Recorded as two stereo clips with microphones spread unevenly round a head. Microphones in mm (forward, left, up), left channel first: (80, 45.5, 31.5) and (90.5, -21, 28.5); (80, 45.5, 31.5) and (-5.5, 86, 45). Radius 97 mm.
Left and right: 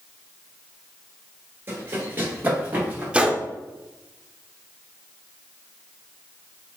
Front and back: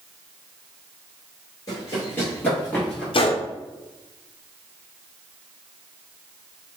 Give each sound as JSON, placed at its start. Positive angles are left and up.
{"t": 1.7, "sound": "running footsteps", "azimuth_deg": -70, "distance_m": 1.7}
{"t": 3.1, "sound": "a gunshot", "azimuth_deg": -10, "distance_m": 0.8}